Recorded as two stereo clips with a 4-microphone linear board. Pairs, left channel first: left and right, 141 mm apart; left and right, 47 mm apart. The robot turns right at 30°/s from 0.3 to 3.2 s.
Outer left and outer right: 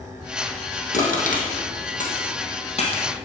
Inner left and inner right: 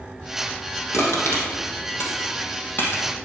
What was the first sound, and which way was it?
Crushing, 70° left (ahead or behind).